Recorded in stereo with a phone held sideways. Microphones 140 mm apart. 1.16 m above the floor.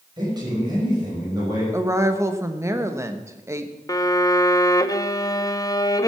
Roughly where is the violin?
Left.